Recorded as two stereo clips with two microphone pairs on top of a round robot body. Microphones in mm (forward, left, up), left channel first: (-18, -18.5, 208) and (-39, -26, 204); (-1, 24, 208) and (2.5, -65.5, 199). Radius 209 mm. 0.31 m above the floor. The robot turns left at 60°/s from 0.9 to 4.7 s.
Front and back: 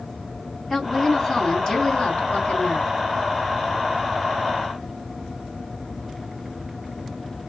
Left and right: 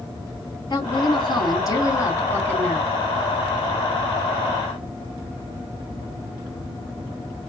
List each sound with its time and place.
0.7 s a woman speaking: 115° left, 1.9 m; by 2.9 s 5° right, 1.9 m